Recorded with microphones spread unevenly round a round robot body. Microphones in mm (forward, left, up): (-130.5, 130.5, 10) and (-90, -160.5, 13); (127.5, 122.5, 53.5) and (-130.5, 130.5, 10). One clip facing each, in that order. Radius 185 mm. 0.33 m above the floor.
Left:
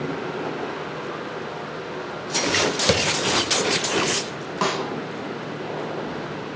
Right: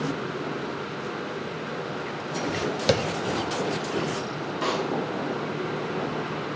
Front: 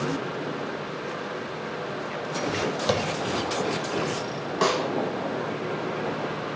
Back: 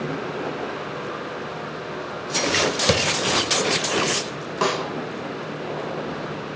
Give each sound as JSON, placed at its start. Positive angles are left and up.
{"t": 2.9, "sound": "tapping", "azimuth_deg": 180, "distance_m": 0.7}
{"t": 4.6, "sound": "a snare drum", "azimuth_deg": 95, "distance_m": 3.5}